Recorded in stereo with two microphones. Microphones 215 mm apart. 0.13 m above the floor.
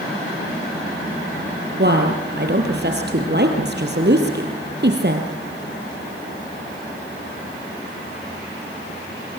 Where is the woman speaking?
50° right (ahead or behind), 3 m.